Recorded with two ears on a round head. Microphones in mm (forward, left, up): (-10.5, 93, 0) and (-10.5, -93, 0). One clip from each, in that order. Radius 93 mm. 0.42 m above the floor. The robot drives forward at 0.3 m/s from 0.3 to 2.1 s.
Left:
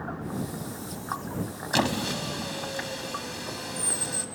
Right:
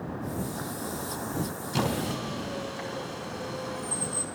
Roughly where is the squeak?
Left.